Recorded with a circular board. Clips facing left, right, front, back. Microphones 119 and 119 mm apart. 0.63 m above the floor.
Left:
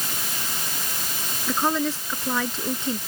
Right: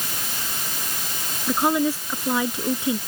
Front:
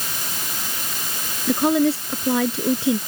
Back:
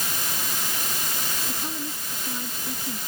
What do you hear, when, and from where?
1.5 s a woman speaking: 10° right